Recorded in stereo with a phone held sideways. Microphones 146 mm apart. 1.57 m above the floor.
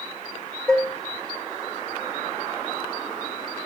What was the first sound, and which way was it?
Dishes clattering, 5° left (ahead or behind).